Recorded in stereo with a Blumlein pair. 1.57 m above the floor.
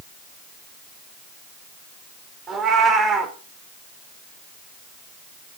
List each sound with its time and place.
2.5 s a cat meowing: 25° right, 3 m